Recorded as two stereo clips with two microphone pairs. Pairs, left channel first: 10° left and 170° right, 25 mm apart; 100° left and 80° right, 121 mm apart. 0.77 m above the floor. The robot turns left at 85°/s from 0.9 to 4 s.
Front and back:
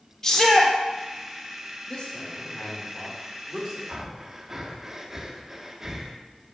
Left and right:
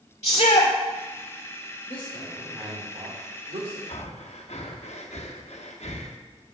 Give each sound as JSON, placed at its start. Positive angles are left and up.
{"t": 0.2, "sound": "a shout", "azimuth_deg": 80, "distance_m": 2.5}
{"t": 1.9, "sound": "a man speaking", "azimuth_deg": 70, "distance_m": 2.5}
{"t": 3.9, "sound": "breathing", "azimuth_deg": 125, "distance_m": 1.0}